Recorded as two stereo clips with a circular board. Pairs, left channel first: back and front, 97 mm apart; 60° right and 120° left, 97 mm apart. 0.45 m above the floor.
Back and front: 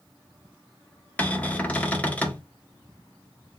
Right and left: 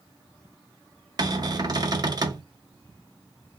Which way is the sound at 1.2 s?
115° left.